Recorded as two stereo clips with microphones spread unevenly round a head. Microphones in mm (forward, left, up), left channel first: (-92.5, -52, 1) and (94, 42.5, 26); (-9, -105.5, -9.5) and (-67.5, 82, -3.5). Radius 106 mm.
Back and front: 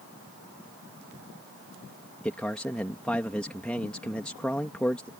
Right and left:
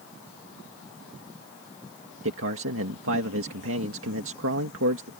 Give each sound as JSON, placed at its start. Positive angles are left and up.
{"t": 2.2, "sound": "a man speaking", "azimuth_deg": 120}